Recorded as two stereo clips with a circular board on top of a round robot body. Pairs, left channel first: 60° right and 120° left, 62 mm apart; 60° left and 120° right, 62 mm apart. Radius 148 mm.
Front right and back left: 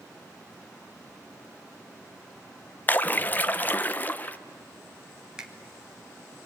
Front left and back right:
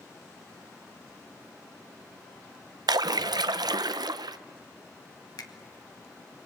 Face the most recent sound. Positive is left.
turn(degrees=40)